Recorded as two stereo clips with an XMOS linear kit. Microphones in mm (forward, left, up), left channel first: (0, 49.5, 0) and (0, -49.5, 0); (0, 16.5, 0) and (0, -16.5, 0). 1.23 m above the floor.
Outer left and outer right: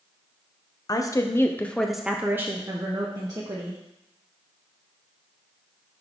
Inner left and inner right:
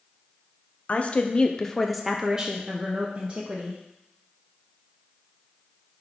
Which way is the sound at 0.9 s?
40° left (ahead or behind).